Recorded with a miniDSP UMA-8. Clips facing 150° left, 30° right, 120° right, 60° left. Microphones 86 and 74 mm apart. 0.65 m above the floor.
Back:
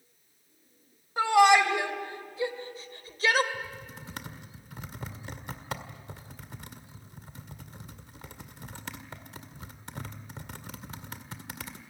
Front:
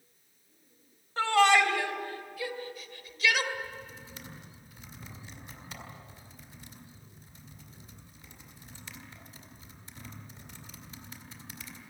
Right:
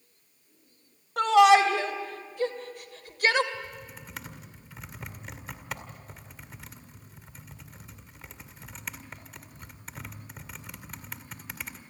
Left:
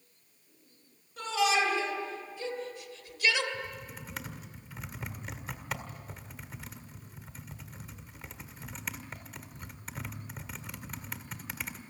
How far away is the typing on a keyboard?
About 1.9 m.